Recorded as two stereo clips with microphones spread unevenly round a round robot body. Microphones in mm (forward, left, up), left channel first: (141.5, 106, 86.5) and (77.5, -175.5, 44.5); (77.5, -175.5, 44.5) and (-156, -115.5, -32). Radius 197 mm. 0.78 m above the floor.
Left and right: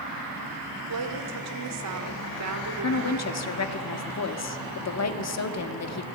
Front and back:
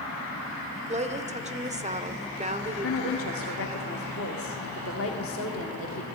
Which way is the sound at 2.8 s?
45° left.